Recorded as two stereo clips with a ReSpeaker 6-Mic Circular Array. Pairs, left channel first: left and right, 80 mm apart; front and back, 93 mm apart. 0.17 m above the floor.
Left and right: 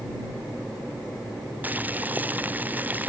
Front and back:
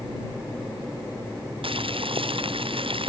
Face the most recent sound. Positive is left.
turn(degrees=-160)